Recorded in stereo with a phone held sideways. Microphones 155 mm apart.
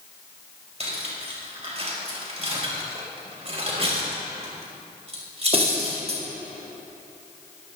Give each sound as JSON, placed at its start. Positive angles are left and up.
{"t": 0.8, "sound": "cutlery clinking", "side_deg": -40, "distance_m": 4.0}